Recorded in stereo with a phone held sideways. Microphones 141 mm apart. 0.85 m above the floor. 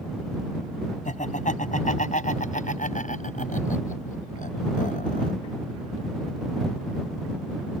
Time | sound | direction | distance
1.1 | laughter | 60° left (ahead or behind) | ?